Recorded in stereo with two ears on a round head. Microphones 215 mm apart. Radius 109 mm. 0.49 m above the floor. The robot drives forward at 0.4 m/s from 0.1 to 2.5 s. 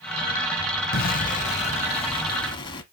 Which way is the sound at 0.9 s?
40° left (ahead or behind).